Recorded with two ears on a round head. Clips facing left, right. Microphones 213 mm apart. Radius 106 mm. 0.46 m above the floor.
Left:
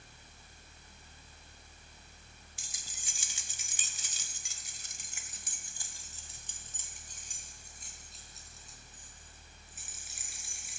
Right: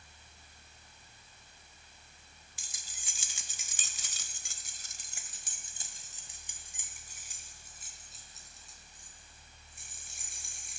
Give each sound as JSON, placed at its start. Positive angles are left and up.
{"t": 2.6, "sound": "keys jangling", "side_deg": -70, "distance_m": 1.7}